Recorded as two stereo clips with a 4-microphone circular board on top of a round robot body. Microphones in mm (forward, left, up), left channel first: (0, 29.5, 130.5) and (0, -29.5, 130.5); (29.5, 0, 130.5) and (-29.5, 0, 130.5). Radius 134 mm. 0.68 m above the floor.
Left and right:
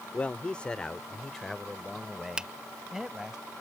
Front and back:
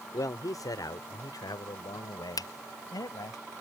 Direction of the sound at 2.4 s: 15° right.